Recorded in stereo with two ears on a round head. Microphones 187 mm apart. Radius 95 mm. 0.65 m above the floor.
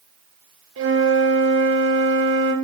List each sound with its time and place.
0.8 s a flute: 65° right (ahead or behind), 1.1 m